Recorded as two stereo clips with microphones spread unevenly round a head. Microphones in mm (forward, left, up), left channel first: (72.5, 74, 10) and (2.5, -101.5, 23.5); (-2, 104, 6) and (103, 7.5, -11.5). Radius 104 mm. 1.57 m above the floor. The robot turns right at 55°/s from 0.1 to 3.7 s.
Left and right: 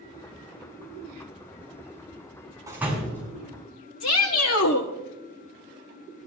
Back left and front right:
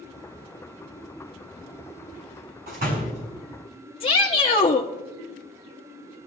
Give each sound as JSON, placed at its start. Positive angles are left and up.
{"t": 2.7, "sound": "a door slam", "azimuth_deg": -40, "distance_m": 6.0}
{"t": 4.0, "sound": "a shout", "azimuth_deg": 90, "distance_m": 1.1}